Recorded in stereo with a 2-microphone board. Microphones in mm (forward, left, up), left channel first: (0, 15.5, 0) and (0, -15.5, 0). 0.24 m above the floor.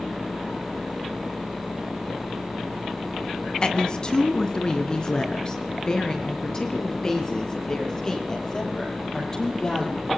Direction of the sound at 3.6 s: 30° left (ahead or behind).